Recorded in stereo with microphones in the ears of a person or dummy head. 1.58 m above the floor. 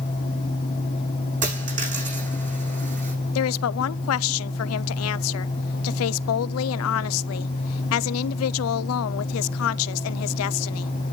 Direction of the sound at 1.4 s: 40° right (ahead or behind).